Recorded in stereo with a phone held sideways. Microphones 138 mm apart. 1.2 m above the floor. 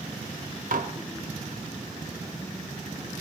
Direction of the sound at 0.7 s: 75° right (ahead or behind).